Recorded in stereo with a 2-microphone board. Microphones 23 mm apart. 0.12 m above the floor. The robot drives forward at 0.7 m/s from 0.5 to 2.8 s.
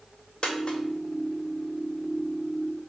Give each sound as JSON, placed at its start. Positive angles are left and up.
{"t": 0.4, "sound": "a dropped coin", "side_deg": 35, "distance_m": 1.1}